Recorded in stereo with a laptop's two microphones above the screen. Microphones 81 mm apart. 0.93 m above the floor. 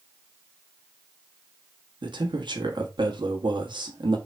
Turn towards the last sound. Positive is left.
turn(degrees=-75)  # may be behind; listen again after turning